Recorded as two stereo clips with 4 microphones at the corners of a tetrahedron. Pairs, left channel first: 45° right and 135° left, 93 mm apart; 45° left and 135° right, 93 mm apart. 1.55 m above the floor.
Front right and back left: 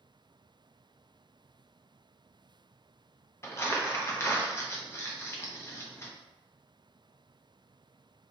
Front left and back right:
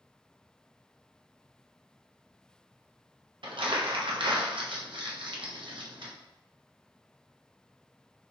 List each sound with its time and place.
3.4 s crumpling: 105° right, 0.7 m